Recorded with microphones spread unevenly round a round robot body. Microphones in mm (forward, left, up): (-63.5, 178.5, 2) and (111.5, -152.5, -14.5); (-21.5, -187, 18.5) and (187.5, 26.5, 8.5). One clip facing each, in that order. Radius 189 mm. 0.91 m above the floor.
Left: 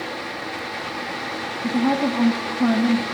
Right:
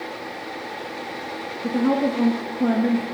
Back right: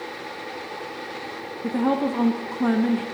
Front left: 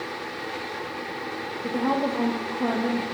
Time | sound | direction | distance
1.6 | a woman speaking | straight behind | 0.7 m